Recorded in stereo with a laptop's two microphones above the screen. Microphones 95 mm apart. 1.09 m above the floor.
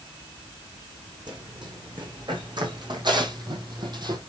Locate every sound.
1.3 s running footsteps: 50° right (ahead or behind), 4.5 m